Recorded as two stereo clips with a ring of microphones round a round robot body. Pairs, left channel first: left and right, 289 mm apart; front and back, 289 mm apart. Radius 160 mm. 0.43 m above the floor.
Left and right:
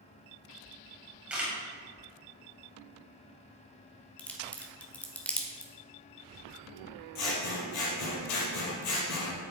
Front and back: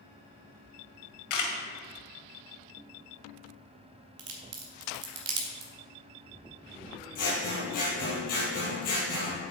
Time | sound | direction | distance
1.3 | a camera shutter | 5° right | 2 m
4.2 | a crack | 175° left | 1.8 m
7.2 | scissors | 65° left | 4 m